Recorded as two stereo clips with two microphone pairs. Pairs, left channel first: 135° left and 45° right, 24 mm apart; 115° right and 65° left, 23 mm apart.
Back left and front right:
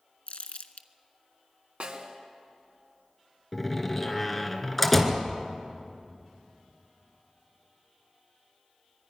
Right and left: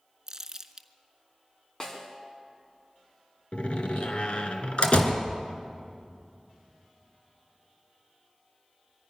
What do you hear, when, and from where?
0.3 s crumpling: 130° left, 1.0 m
1.8 s a snare drum: 55° right, 2.5 m
3.5 s a door slam: 140° right, 1.9 m